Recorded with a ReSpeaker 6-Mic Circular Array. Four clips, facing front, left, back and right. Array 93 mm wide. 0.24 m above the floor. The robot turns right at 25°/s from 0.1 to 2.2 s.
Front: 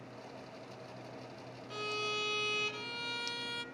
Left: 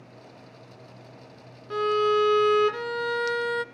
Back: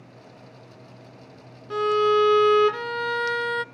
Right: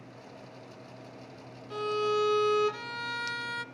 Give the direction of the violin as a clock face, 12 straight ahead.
7 o'clock.